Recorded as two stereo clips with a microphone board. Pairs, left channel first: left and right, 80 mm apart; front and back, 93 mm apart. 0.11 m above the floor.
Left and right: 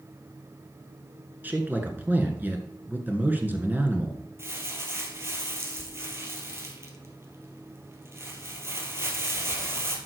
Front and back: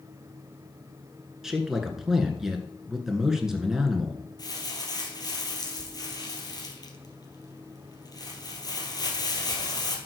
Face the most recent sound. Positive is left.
turn(degrees=-40)